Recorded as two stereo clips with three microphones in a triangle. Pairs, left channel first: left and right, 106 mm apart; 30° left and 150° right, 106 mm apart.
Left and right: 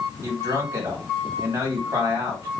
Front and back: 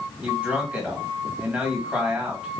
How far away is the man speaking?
About 1.7 m.